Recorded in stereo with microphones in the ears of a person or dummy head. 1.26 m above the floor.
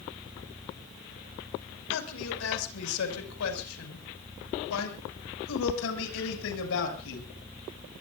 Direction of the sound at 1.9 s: 80° left.